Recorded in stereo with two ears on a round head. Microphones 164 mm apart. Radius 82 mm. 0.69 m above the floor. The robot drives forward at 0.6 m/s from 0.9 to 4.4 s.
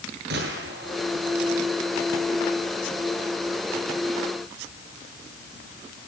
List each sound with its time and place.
0.3 s a gunshot: 65° right (ahead or behind), 9.5 m